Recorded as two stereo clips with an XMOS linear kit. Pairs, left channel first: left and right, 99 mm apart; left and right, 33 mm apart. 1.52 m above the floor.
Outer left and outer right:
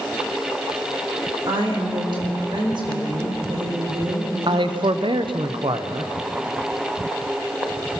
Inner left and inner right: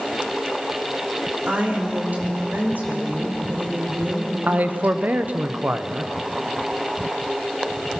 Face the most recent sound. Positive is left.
turn(degrees=-60)  # may be behind; listen again after turning